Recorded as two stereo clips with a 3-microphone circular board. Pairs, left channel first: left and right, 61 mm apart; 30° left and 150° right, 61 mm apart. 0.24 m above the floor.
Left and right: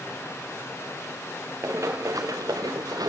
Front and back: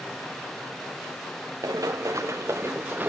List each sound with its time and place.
1.6 s running footsteps: 135° right, 1.4 m; by 3.1 s 90° right, 1.4 m